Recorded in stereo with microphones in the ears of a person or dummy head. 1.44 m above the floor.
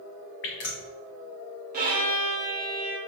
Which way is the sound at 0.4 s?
40° left (ahead or behind).